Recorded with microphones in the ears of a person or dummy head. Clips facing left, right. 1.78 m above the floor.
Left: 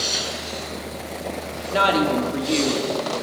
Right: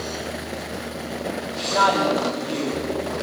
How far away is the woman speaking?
About 4 m.